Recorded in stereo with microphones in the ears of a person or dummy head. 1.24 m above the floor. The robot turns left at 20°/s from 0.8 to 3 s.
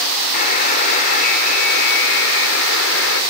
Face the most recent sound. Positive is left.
turn(degrees=85)